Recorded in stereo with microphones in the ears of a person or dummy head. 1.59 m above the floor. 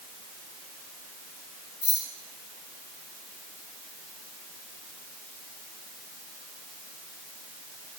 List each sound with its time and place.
1.8 s keys jangling: 10° left (ahead or behind), 2 m